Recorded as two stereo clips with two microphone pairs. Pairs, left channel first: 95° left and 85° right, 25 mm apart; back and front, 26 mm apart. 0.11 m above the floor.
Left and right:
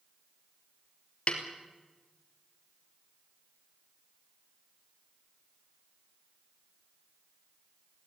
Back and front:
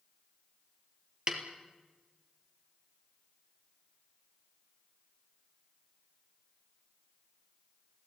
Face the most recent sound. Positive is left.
turn(degrees=55)